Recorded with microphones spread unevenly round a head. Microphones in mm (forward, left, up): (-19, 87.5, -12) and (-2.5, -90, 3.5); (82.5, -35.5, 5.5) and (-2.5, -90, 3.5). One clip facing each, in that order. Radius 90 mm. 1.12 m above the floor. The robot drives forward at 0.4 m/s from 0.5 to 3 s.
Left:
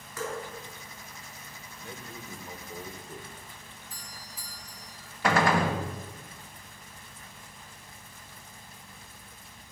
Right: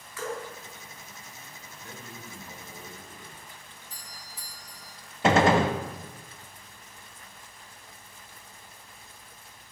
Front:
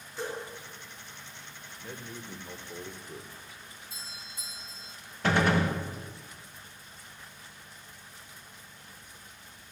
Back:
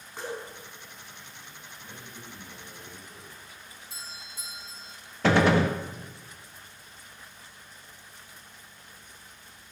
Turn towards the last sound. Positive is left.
turn(degrees=-150)